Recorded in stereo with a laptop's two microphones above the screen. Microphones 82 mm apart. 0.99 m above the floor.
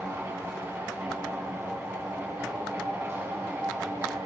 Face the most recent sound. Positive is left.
turn(degrees=-30)  # may be behind; listen again after turning